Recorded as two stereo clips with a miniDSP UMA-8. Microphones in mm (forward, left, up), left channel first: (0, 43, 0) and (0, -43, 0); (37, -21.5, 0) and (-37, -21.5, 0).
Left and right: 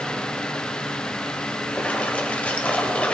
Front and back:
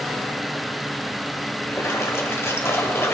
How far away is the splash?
About 1.5 m.